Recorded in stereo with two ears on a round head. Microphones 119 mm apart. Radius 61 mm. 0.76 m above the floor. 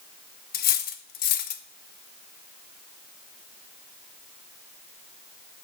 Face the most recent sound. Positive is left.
turn(degrees=75)  # may be behind; listen again after turning